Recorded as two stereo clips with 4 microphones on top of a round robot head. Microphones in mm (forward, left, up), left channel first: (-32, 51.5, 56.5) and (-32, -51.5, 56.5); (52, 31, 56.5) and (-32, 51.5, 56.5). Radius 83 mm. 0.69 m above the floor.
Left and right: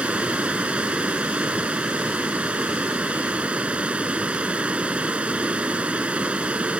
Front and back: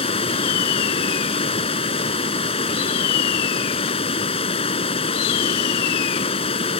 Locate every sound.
0.0 s running water: 10° right